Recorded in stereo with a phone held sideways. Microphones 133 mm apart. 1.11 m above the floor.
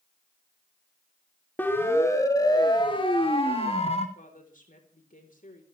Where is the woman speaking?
80° left, 4 m.